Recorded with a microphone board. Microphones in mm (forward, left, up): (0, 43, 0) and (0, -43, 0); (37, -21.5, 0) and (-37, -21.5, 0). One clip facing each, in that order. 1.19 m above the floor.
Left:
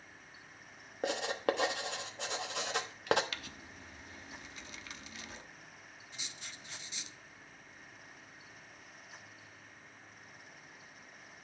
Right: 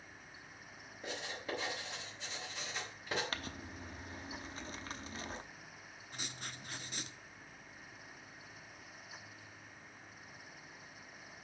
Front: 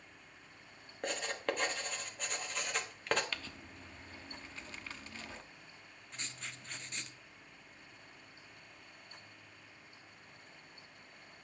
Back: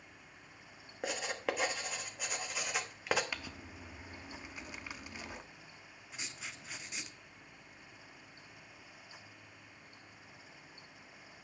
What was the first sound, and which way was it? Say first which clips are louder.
Writing: left 10 dB, even; 95° left.